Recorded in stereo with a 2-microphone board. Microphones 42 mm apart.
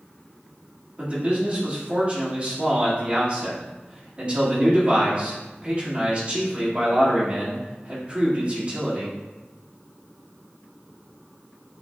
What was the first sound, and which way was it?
A man speaking, 30° right (ahead or behind).